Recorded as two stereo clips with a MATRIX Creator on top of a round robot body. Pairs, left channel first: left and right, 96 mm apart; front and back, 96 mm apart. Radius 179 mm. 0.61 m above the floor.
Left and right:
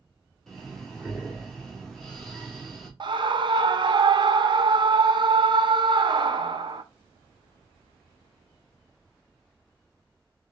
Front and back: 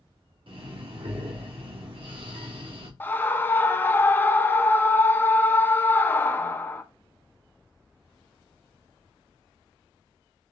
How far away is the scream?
About 1.0 m.